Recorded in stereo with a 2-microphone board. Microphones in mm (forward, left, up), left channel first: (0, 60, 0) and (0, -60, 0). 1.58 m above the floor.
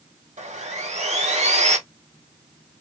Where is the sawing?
70° right (ahead or behind), 1.0 m.